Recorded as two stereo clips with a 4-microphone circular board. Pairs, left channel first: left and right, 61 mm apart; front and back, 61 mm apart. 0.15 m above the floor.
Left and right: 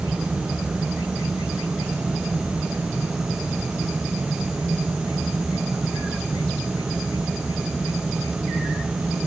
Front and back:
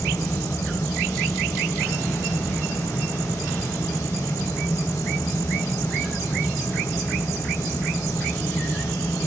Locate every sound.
Only background noise.